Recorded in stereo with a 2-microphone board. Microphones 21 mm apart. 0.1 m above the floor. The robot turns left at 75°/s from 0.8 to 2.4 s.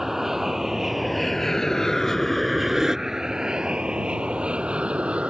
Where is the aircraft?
15° right (ahead or behind); by 5.3 s 60° right (ahead or behind).